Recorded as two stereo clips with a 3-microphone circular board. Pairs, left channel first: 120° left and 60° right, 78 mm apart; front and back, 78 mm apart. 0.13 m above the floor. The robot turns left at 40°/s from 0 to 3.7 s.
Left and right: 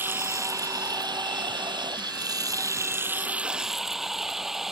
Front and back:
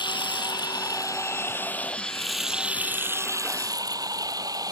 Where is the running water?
5° left; by 4.7 s 145° right.